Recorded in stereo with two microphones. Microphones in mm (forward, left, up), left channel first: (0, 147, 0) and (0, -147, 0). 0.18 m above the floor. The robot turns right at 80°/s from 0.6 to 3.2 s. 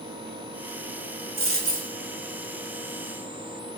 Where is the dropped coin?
100° right, 0.8 m; by 1.9 s 55° right, 0.8 m.